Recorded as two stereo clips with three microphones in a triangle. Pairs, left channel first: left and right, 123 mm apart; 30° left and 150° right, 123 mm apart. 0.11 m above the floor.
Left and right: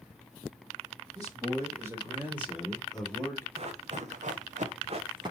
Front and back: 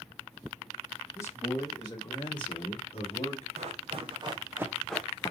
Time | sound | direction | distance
1.1 | a man speaking | 35° right | 4 m
3.6 | running footsteps | 125° right | 2 m